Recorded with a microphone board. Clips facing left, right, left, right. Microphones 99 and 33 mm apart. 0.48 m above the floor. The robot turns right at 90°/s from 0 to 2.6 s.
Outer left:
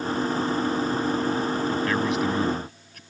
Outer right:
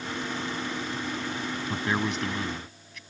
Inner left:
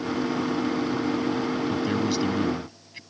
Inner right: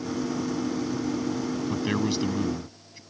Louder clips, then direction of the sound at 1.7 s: Outer left 5 dB, inner left 2 dB; 35° right.